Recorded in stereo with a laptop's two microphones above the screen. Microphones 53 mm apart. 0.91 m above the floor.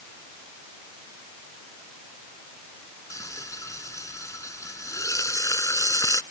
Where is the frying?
85° left.